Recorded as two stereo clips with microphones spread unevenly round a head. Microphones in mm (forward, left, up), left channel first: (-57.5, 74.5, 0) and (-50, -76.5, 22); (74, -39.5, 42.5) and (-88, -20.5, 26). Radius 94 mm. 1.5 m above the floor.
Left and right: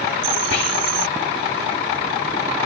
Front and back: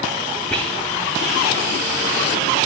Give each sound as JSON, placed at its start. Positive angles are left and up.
{"t": 0.5, "sound": "whispering", "azimuth_deg": 75, "distance_m": 1.9}